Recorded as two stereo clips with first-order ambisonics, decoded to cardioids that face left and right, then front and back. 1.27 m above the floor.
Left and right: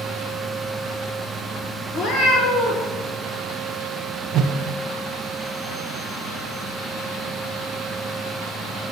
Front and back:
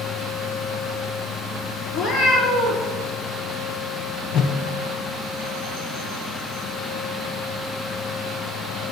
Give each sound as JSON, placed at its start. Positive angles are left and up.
{"t": 1.9, "sound": "a cat meowing", "azimuth_deg": 50, "distance_m": 2.5}
{"t": 4.3, "sound": "a whoosh", "azimuth_deg": -40, "distance_m": 0.7}